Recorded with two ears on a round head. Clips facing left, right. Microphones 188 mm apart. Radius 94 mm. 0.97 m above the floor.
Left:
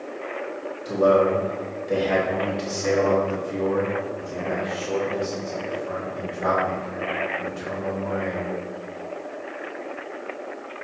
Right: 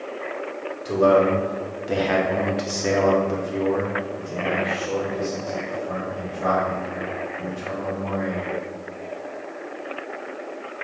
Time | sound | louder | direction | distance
0.8 | a man speaking | right 1 dB | 65° right (ahead or behind) | 2.5 m